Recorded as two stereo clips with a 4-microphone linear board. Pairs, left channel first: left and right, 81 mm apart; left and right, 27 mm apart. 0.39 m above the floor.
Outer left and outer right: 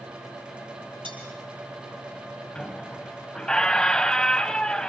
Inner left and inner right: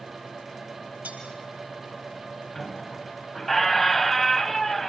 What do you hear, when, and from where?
1.0 s cutlery clinking: 80° right, 7 m
2.5 s a squeak: 10° left (ahead or behind), 0.9 m